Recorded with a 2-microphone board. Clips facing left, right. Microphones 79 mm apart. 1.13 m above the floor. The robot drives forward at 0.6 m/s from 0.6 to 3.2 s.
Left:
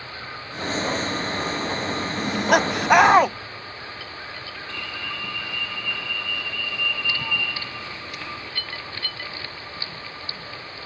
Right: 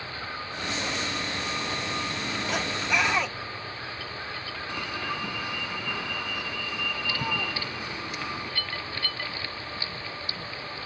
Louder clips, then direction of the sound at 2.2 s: Left 10 dB; 60° left (ahead or behind).